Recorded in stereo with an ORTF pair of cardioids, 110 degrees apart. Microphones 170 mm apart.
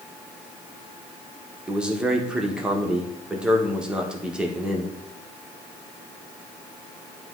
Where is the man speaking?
5° right, 1.1 m.